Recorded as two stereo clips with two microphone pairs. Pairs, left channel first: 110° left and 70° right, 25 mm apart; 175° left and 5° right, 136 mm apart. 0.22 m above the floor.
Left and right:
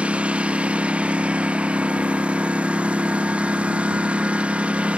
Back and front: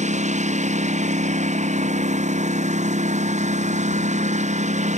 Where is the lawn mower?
35° right.